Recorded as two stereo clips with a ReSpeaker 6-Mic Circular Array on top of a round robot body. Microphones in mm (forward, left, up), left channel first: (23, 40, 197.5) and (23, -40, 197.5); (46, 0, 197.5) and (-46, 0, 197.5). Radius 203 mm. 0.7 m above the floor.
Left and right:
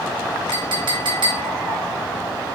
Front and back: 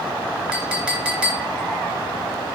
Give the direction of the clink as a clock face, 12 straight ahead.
3 o'clock.